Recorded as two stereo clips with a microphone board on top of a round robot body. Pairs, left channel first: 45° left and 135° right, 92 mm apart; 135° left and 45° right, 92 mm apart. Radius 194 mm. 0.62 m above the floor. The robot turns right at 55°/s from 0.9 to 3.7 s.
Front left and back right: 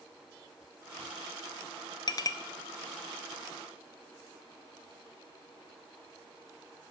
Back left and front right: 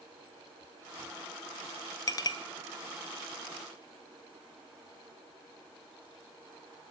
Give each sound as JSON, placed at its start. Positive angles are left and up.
{"t": 2.1, "sound": "a clink", "azimuth_deg": 85, "distance_m": 0.8}